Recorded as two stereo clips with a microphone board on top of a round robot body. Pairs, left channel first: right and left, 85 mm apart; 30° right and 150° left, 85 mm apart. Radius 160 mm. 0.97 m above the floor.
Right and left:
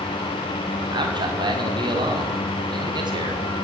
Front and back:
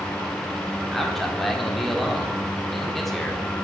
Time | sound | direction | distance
0.9 | a man speaking | 55° left | 3 m